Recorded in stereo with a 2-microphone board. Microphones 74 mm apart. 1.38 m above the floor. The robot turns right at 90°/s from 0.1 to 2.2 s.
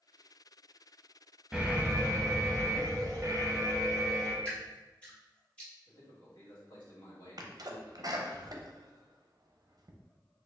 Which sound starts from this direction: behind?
An alarm, at 1.5 s.